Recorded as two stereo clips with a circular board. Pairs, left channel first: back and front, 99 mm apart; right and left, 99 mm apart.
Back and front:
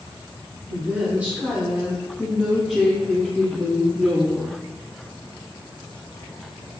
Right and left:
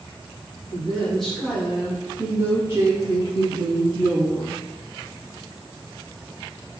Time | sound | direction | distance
0.7 | a woman speaking | 35° right | 1.2 m